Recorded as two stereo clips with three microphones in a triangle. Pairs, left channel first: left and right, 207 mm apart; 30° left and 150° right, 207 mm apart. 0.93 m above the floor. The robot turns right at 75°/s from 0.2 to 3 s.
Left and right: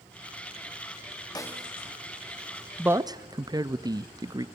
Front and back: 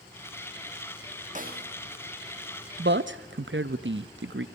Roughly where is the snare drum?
Behind.